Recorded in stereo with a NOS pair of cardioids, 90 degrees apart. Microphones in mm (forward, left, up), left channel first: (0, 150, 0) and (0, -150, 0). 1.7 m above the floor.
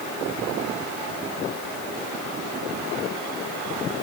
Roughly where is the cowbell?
I don't hear a cowbell.